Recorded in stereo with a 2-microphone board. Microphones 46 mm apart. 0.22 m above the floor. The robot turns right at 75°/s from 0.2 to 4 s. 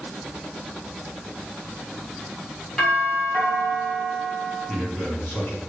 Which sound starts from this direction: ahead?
A doorbell, at 2.8 s.